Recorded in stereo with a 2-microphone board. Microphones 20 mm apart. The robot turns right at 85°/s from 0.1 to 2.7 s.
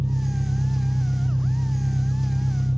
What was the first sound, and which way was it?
An engine running, 50° right.